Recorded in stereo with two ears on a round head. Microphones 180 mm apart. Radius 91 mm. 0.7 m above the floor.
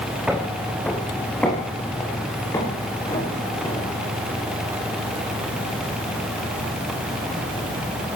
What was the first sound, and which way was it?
Footsteps, 5° right (ahead or behind).